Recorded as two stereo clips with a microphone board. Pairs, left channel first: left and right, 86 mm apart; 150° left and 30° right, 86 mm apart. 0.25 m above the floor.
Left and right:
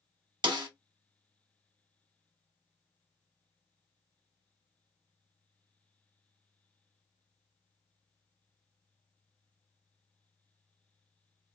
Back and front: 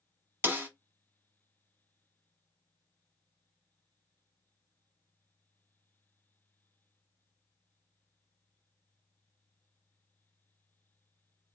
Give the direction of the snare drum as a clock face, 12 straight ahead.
3 o'clock.